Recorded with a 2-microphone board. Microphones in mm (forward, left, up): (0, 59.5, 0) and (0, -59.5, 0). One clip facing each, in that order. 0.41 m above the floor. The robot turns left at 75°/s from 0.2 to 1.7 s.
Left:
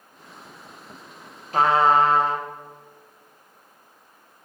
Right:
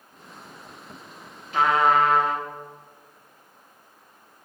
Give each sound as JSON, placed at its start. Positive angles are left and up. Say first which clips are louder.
{"t": 1.5, "sound": "a trumpet", "louder": "left 2 dB", "side_deg": 45, "distance_m": 0.6}